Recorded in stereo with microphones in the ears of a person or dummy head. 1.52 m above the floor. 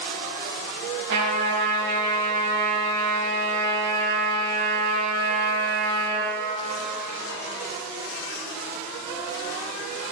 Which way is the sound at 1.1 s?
65° right (ahead or behind).